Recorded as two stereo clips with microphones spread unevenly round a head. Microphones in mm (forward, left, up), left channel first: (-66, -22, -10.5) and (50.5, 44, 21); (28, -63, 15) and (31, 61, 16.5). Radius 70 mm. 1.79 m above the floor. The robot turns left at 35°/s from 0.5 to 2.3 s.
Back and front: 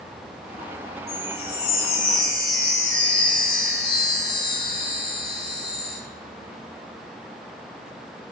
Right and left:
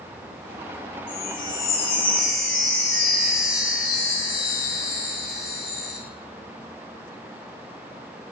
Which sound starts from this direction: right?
A chime, at 1.1 s.